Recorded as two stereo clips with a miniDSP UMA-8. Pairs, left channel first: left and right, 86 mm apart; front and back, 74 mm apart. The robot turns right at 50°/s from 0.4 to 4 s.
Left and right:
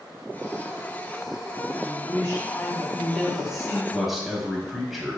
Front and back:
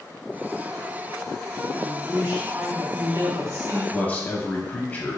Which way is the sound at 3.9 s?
10° right.